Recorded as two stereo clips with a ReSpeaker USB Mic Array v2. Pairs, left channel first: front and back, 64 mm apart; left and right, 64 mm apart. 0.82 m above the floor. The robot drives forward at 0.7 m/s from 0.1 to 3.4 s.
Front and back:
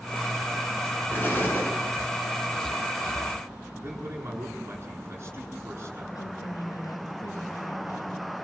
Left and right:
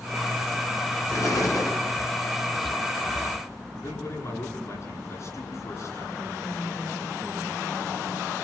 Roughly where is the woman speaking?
Ahead.